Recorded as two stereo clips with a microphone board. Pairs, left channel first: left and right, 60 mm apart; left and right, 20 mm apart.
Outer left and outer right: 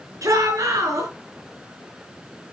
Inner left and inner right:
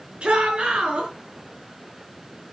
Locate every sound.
0.2 s a shout: 60° right (ahead or behind), 5 m